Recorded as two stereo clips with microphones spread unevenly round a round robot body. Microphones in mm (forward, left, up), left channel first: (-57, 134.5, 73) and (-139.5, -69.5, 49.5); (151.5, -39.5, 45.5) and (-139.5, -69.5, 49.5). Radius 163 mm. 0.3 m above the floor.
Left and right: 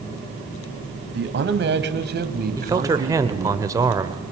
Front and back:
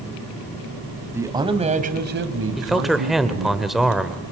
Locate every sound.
1.1 s a man speaking: 95° right, 2 m; by 3.6 s 170° right, 3 m
2.6 s a man speaking: 85° right, 1.3 m